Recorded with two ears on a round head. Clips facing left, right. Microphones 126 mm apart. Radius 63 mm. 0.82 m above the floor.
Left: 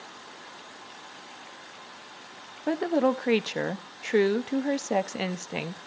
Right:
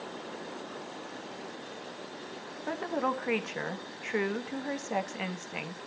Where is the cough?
No cough in this recording.